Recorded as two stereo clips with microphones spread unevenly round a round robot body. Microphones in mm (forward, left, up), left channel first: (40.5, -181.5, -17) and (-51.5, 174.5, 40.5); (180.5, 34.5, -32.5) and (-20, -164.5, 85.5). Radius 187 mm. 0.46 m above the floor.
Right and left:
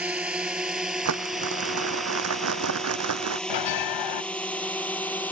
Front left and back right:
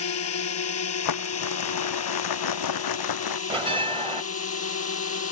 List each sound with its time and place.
0.0 s a drone: 20° left; by 5.3 s 10° left
1.1 s crumpling: 55° left
3.5 s a bell: 55° right